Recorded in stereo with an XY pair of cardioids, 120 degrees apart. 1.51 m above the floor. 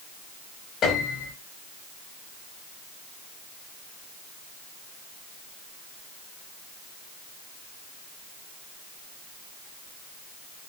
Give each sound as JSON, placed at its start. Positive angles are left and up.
{"t": 0.8, "sound": "a piano", "azimuth_deg": 60, "distance_m": 4.5}